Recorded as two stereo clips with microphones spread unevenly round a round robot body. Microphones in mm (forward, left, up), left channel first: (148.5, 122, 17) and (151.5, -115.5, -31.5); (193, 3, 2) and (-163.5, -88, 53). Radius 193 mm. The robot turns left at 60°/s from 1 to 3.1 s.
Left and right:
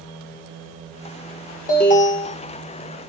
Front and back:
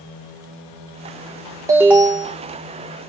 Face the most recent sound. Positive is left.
turn(degrees=20)